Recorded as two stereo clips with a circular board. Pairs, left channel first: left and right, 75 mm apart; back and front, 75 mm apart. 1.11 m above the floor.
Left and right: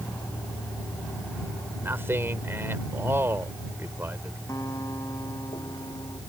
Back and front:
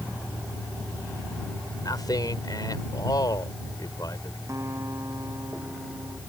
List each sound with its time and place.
0.0 s a vehicle: 100° left; by 6.3 s 95° left
1.8 s a man speaking: 150° right
4.5 s a guitar: 50° left